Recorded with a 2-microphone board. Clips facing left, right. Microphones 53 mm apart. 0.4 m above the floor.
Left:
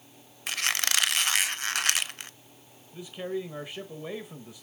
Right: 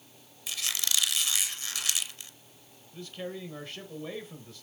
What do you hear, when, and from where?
0.5 s a squeak: 55° left (ahead or behind), 0.5 m
2.9 s a man speaking: 15° left (ahead or behind), 1.2 m